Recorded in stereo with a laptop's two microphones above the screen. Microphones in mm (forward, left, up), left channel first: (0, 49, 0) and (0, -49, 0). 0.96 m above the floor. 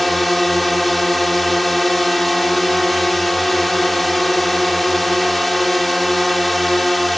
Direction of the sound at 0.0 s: Centre (ahead or behind).